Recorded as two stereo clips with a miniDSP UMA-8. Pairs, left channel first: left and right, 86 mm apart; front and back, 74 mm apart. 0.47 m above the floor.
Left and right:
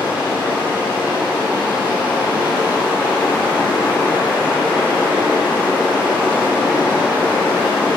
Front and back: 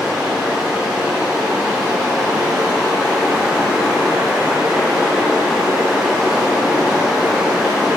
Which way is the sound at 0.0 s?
95° left.